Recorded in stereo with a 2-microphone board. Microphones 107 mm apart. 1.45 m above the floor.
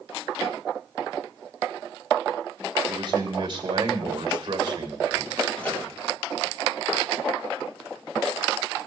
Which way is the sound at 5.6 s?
15° left (ahead or behind).